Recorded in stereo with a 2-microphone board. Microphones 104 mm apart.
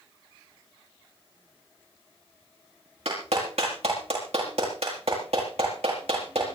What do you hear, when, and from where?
3.0 s a clap: 75° right (ahead or behind), 8.5 m